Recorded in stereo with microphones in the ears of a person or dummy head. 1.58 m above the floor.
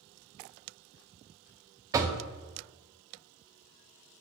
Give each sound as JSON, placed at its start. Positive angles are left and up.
{"t": 1.9, "sound": "knocking", "side_deg": -20, "distance_m": 0.6}